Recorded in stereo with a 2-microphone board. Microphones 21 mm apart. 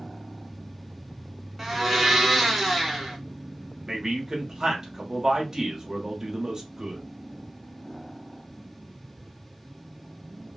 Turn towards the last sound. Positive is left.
turn(degrees=-25)  # may be behind; listen again after turning